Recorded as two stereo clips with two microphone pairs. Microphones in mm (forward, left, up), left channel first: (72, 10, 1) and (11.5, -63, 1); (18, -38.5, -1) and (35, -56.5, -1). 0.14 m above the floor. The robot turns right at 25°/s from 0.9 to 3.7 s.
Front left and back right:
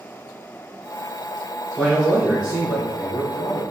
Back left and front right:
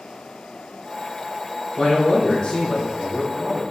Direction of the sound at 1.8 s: 155° left.